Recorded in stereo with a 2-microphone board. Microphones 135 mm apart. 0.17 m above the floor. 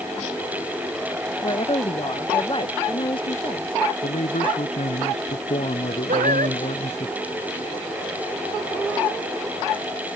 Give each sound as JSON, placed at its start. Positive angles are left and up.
{"t": 1.4, "sound": "a woman speaking", "side_deg": 40}
{"t": 4.0, "sound": "a man speaking", "side_deg": 55}
{"t": 6.1, "sound": "singing", "side_deg": -85}